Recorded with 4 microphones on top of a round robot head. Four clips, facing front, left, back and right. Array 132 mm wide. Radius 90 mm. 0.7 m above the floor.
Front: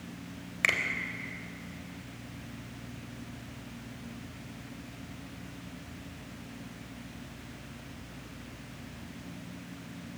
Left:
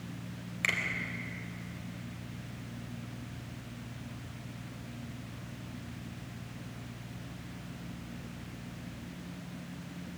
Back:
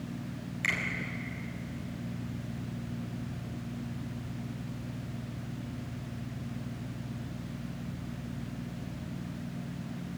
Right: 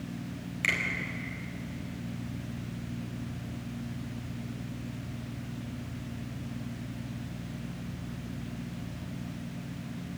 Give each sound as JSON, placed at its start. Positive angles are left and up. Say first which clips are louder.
{"t": 0.6, "sound": "a finger snap", "louder": "right 2 dB, front 3 dB", "azimuth_deg": 5, "distance_m": 4.0}